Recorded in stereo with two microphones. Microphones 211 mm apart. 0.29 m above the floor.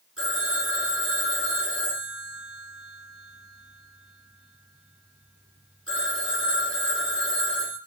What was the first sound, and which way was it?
A phone ringing, 85° right.